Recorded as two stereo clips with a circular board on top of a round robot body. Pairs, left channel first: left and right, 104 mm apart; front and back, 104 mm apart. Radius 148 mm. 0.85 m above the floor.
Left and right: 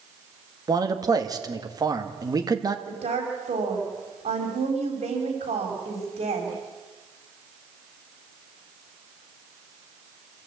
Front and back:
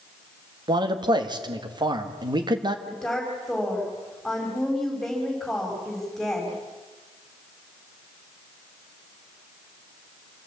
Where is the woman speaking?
85° right, 5.5 m.